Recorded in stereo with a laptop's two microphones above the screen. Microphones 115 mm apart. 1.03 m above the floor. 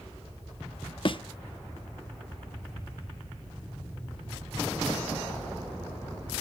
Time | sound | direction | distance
1.1 | a thud | 45° left (ahead or behind) | 0.7 m